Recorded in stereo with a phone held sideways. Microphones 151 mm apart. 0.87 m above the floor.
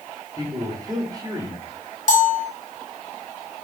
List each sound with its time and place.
0.4 s a man speaking: 25° right (ahead or behind), 2.5 m
2.1 s a bell: 55° left (ahead or behind), 1.2 m